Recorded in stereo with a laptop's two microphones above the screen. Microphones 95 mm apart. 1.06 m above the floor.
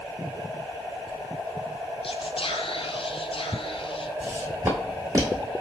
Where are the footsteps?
20° right (ahead or behind), 2.0 m; by 5.4 s 40° right (ahead or behind), 1.6 m.